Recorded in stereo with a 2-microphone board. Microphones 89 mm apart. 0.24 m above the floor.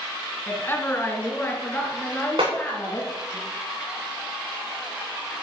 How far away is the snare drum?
About 5.5 m.